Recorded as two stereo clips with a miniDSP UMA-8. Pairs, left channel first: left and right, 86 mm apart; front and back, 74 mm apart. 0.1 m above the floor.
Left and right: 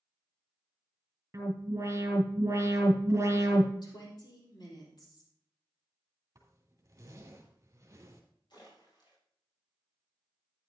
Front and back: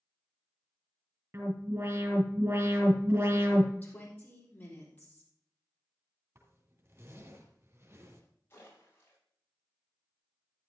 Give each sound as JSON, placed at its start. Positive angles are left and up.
{"t": 1.3, "sound": "an alarm", "azimuth_deg": -140, "distance_m": 3.5}
{"t": 3.8, "sound": "a woman speaking", "azimuth_deg": 65, "distance_m": 3.5}
{"t": 6.3, "sound": "a zipper", "azimuth_deg": -140, "distance_m": 3.0}
{"t": 8.5, "sound": "a splash", "azimuth_deg": 60, "distance_m": 6.5}